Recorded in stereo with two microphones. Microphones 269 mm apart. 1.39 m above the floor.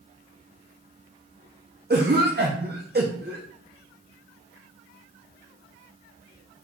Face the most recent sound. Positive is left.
turn(degrees=-35)  # may be behind; listen again after turning